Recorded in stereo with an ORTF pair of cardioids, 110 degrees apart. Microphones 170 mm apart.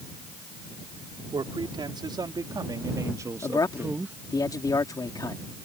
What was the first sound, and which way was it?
A man speaking, 25° right.